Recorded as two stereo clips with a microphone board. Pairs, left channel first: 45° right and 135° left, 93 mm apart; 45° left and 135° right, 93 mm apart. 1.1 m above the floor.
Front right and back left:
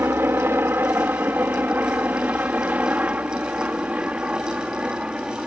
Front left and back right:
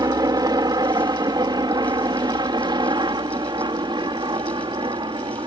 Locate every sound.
0.0 s a helicopter: 165° right; by 5.5 s 145° right